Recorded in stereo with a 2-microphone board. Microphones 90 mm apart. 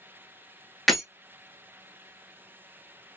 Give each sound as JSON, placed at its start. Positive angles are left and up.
{"t": 0.9, "sound": "breaking glass", "side_deg": 0, "distance_m": 0.6}